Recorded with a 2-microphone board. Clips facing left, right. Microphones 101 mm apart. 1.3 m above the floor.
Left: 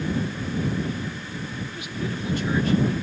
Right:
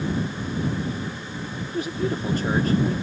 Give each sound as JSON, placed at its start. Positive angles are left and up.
{"t": 1.7, "sound": "a man speaking", "side_deg": -40}